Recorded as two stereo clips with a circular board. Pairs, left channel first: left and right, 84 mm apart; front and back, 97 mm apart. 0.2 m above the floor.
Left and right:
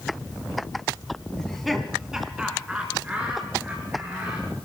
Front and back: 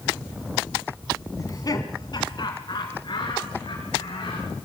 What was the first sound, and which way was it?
Laughter, 10° left.